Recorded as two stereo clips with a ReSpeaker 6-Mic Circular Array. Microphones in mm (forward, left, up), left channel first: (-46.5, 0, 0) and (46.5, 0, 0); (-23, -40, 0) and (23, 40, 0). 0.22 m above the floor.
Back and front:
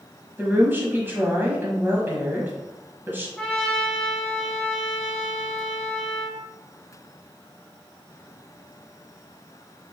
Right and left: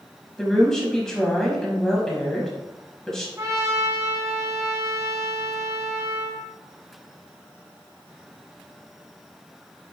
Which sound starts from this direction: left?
A trumpet, at 3.4 s.